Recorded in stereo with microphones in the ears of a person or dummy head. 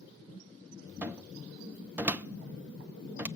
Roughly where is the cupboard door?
Centre.